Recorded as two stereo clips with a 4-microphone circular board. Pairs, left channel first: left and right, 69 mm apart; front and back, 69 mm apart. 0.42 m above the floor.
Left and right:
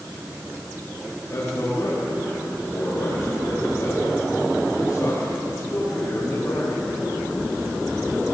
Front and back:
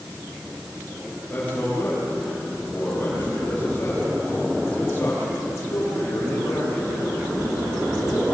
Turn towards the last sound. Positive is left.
turn(degrees=45)